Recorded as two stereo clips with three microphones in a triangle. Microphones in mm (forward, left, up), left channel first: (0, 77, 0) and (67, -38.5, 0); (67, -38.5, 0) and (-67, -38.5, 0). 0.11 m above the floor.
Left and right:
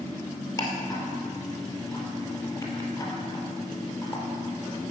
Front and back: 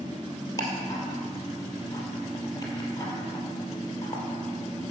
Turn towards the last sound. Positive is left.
turn(degrees=60)